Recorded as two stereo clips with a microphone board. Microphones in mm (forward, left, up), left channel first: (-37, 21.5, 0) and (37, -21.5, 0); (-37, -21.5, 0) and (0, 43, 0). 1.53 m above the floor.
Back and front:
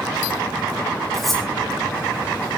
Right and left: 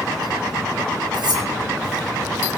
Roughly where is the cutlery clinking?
Ahead left.